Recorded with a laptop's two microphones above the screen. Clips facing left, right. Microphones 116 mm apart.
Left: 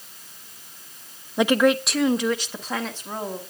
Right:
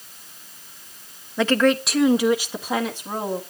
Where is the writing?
No writing in this recording.